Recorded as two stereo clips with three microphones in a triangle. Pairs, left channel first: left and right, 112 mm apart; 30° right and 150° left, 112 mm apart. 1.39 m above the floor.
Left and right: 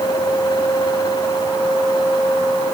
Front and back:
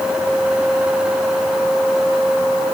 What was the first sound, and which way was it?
Only background noise.